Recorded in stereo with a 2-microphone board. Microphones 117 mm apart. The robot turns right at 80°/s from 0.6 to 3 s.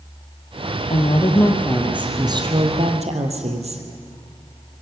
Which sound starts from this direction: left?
A woman speaking, at 0.9 s.